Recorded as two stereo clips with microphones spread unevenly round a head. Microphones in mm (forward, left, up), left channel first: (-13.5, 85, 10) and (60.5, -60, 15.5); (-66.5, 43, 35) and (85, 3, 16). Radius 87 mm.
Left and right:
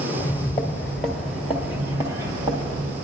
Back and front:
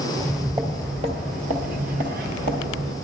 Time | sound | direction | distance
0.1 | footsteps | 55° left | 1.6 m